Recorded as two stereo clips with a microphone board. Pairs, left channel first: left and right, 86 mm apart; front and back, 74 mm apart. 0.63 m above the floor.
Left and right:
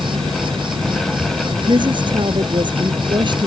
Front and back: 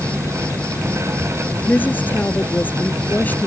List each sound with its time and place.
0.0 s an insect: 75° right
1.7 s a woman speaking: 65° right